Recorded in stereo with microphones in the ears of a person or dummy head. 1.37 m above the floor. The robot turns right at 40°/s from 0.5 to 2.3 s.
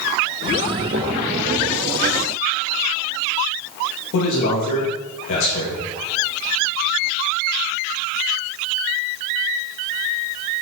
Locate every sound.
4.1 s a man speaking: 65° left (ahead or behind), 2.5 m